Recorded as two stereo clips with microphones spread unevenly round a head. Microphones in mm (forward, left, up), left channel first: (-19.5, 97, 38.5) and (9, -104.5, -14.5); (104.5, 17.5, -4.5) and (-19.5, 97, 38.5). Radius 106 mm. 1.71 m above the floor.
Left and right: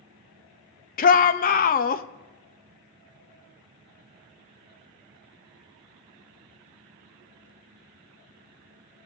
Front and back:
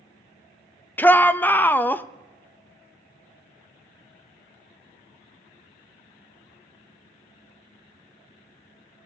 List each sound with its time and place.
1.0 s a shout: 50° left, 0.6 m